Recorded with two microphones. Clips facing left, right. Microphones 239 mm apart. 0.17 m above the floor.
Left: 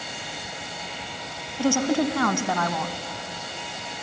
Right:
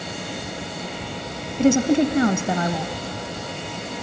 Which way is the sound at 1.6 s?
20° right (ahead or behind).